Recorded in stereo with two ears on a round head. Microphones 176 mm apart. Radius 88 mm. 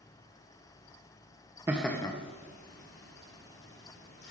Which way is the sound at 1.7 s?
15° right (ahead or behind).